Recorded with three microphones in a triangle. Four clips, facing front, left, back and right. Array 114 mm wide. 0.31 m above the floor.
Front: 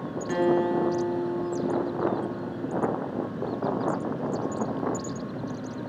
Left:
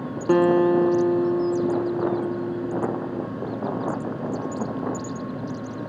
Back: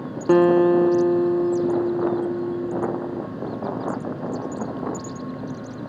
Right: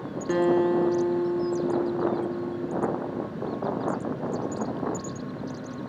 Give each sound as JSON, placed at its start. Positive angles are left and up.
{"t": 0.3, "sound": "a guitar", "azimuth_deg": 155, "distance_m": 0.7}